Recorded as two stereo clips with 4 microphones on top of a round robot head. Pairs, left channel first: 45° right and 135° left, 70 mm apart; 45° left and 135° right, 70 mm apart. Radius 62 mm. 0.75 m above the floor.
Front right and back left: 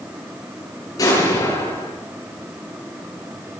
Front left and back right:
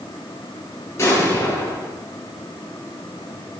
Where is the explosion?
10° right, 9.5 m.